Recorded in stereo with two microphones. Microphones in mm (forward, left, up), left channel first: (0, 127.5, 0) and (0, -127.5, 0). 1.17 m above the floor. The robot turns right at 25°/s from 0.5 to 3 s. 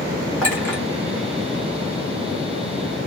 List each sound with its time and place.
0.4 s a clink: 5° left (ahead or behind), 1.5 m; by 0.8 s 15° left (ahead or behind), 1.5 m